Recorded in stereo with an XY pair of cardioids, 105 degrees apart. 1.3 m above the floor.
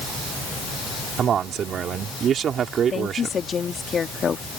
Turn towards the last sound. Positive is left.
turn(degrees=40)